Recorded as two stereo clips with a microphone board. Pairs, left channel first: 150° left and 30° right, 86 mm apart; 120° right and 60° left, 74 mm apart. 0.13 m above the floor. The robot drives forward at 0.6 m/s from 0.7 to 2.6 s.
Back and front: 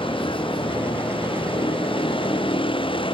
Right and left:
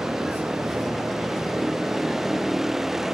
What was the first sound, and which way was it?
A vehicle, 145° left.